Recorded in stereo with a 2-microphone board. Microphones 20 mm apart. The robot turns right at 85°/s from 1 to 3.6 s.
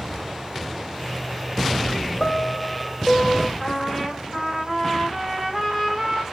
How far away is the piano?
About 0.6 m.